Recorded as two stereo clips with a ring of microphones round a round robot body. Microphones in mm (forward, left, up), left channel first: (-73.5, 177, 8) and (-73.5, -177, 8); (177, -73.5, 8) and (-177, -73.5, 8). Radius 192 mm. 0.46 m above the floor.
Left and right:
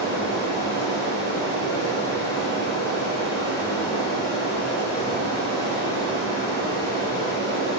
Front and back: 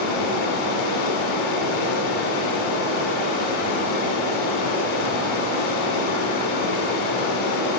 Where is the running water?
10° left, 1.3 m.